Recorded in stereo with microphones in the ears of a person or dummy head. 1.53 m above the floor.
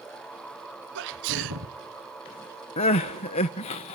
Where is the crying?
35° left (ahead or behind), 0.6 m.